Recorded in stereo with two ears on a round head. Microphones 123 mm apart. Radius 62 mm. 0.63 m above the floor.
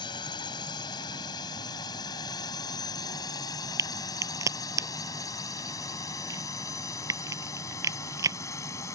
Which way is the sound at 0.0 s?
35° left (ahead or behind).